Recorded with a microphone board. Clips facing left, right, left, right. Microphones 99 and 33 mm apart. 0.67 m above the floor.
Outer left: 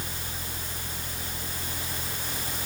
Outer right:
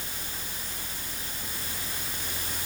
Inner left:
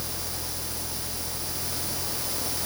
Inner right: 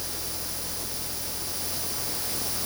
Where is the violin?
I don't hear a violin.